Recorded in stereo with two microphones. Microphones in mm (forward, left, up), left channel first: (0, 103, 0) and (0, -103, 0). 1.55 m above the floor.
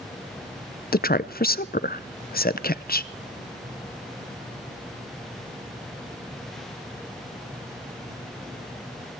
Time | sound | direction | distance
0.9 | a woman speaking | 45° left (ahead or behind) | 0.6 m